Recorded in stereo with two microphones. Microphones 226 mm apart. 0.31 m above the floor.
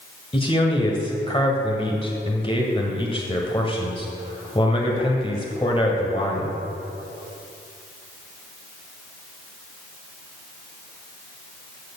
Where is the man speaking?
25° left (ahead or behind), 1.6 m.